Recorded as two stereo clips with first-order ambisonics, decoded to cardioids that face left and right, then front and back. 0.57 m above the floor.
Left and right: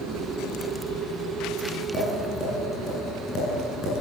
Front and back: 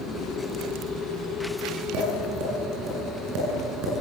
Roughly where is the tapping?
Behind left.